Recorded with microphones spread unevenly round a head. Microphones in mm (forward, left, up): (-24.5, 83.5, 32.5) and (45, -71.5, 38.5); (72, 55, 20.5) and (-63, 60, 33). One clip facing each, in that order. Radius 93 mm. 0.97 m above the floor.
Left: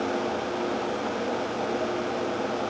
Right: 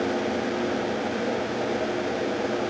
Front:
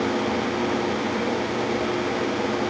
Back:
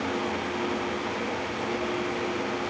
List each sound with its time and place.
Only background noise.